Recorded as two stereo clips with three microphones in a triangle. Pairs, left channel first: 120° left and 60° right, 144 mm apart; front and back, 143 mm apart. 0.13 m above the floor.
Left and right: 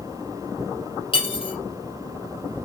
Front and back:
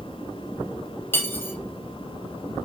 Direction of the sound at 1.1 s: 75° left.